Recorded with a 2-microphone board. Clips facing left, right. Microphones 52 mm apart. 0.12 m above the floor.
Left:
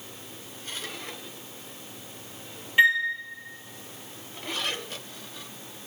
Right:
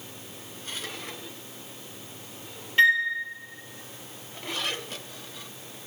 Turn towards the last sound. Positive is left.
turn(degrees=15)  # may be behind; listen again after turning